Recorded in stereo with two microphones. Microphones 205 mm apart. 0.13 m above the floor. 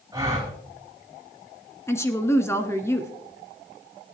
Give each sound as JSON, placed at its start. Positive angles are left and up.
{"t": 0.1, "sound": "a gasp", "side_deg": -15, "distance_m": 5.0}
{"t": 1.9, "sound": "a woman speaking", "side_deg": 15, "distance_m": 1.2}